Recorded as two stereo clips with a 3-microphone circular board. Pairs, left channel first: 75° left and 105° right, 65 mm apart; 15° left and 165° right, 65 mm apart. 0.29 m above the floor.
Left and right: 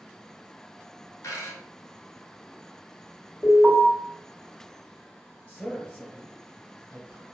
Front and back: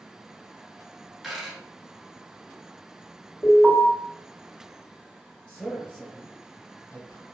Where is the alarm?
60° left, 1.9 m.